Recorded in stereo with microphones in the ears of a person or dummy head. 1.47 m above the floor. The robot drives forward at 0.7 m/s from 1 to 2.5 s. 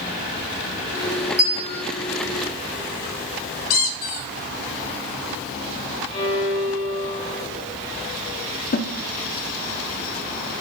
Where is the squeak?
50° left (ahead or behind), 1.1 m.